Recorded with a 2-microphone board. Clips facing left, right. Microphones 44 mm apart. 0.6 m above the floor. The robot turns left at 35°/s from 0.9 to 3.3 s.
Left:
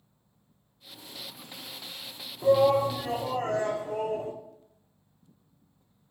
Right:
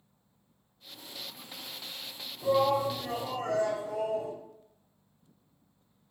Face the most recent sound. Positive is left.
turn(degrees=65)